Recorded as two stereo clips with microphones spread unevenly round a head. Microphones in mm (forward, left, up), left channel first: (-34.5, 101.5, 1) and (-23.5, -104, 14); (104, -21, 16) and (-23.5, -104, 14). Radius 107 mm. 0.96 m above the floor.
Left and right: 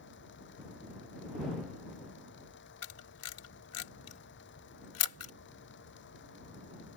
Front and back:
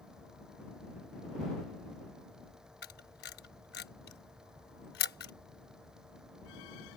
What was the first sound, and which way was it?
A fan, 125° left.